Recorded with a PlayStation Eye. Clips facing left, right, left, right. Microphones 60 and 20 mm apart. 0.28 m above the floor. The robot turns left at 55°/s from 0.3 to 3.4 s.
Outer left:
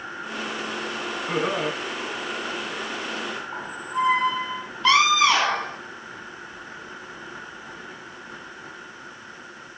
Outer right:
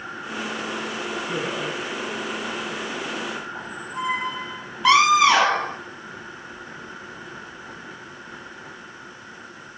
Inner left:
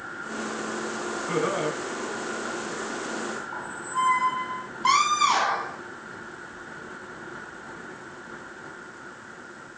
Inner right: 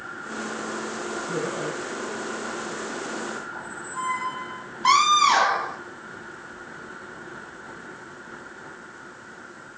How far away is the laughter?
About 2.5 m.